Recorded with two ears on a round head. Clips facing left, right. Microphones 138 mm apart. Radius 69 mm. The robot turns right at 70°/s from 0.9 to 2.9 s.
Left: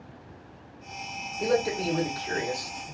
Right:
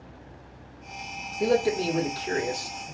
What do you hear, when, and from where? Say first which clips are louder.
1.4 s a man speaking: right 3 dB; 130° right, 1.0 m; by 3.0 s 25° right, 1.0 m